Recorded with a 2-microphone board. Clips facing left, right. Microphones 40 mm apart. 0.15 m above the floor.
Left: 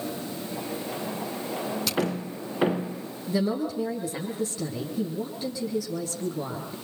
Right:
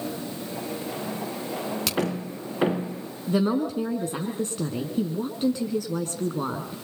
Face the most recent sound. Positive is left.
turn(degrees=-60)  # may be behind; listen again after turning